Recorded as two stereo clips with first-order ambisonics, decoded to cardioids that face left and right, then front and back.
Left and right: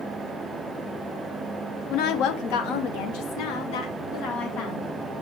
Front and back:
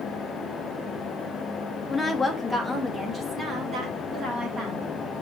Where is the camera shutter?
I don't hear a camera shutter.